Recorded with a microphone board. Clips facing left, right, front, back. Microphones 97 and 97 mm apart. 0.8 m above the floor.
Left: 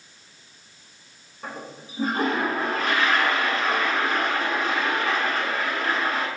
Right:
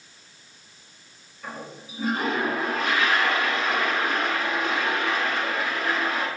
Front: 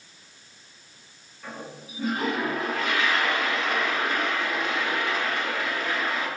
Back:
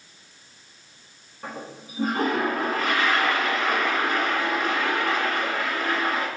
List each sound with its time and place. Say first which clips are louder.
1.4 s a toilet flushing: left 1 dB, back 2 dB; 135° left, 9.5 m